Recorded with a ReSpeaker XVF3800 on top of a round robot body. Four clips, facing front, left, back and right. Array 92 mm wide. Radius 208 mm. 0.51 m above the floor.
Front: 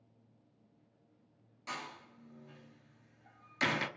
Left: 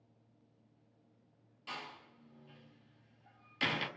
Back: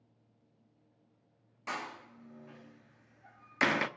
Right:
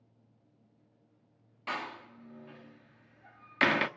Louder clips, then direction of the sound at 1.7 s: Right 9 dB, back 4 dB; 120° right.